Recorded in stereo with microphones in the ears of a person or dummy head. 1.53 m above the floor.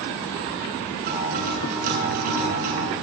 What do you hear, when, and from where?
1.1 s a guitar: 50° right (ahead or behind), 8 m